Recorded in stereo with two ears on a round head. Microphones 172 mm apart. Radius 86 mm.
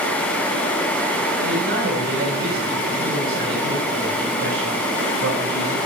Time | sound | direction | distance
1.4 | a man speaking | 60° right (ahead or behind) | 6.5 m